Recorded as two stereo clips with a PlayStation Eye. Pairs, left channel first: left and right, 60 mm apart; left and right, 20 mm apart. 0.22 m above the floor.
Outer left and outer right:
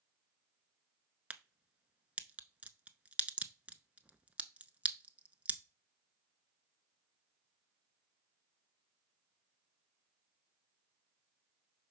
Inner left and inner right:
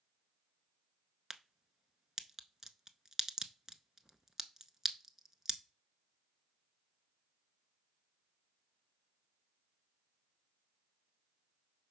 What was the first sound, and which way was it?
A crack, 25° right (ahead or behind).